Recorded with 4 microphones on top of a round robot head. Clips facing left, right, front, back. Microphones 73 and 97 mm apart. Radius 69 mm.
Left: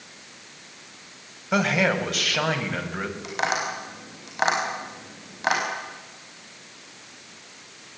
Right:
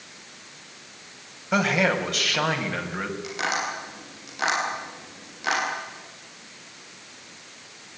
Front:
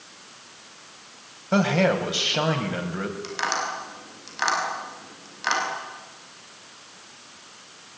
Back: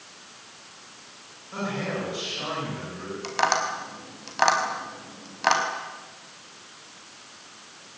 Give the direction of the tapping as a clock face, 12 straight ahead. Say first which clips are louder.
Left 3 dB, back 7 dB; 7 o'clock.